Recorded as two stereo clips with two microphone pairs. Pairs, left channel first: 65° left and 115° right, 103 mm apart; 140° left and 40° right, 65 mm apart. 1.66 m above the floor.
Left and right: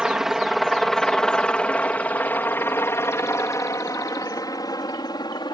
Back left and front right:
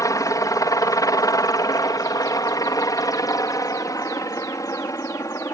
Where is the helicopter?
160° left; by 5.5 s 110° left.